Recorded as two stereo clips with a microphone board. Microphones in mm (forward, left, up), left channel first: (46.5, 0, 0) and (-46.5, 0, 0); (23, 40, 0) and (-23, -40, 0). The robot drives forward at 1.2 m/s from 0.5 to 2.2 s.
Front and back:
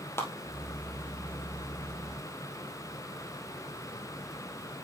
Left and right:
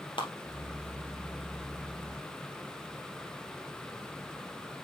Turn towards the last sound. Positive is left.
turn(degrees=115)